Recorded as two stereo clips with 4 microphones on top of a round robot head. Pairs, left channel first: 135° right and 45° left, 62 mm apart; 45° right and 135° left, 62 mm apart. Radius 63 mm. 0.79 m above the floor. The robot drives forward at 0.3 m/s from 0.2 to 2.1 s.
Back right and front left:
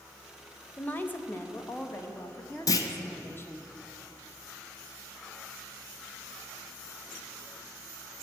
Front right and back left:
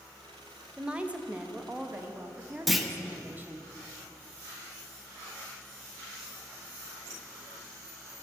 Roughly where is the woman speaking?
Behind.